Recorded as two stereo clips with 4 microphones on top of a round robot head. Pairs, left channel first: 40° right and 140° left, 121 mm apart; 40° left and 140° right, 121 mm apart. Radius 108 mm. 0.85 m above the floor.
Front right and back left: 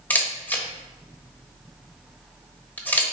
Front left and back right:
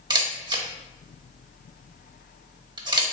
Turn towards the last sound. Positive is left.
turn(degrees=-110)